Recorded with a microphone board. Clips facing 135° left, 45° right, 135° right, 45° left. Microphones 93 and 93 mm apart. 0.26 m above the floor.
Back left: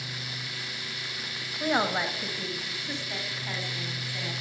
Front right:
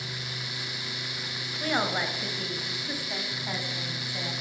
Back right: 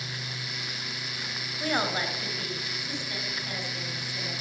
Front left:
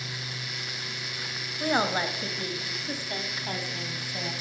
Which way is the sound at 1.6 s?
95° left.